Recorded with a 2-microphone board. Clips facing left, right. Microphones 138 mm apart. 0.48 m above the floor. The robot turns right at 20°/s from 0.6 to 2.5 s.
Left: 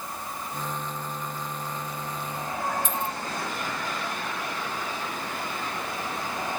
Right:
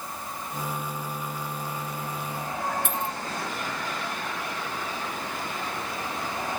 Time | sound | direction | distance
2.9 | a dropped coin | 65° right (ahead or behind) | 1.3 m